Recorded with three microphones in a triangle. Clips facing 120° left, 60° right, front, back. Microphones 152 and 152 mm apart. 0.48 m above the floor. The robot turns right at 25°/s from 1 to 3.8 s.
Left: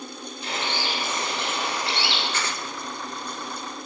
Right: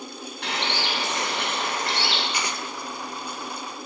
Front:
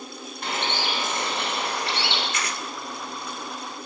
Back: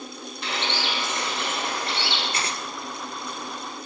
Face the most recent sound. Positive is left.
turn(degrees=-95)